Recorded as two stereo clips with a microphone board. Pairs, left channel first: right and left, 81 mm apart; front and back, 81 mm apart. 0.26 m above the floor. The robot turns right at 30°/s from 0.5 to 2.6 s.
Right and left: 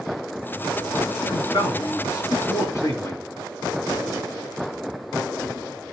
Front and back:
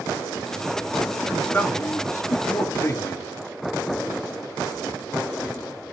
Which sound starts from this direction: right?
A man speaking, at 1.3 s.